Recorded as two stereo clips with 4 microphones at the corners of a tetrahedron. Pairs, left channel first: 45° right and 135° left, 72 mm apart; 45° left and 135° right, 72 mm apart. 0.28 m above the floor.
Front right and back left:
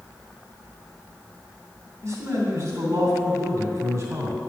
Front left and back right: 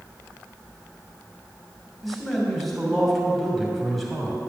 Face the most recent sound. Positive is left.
turn(degrees=135)